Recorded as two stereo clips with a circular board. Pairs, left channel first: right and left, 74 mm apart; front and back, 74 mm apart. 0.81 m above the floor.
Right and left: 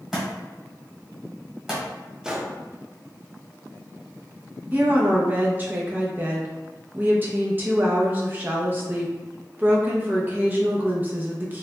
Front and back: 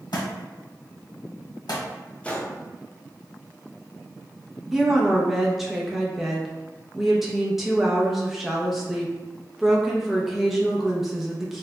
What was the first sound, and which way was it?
A thud, 5° left.